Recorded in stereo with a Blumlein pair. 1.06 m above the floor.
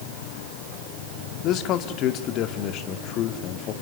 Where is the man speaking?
35° left, 1.9 m.